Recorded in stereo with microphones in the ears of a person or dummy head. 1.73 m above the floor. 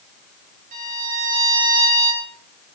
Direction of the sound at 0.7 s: 50° right (ahead or behind).